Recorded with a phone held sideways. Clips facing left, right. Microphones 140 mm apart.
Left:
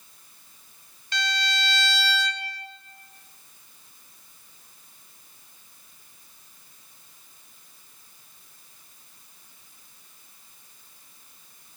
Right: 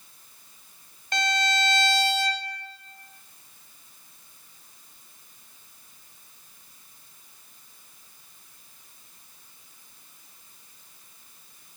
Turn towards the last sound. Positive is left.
turn(degrees=-45)  # may be behind; listen again after turning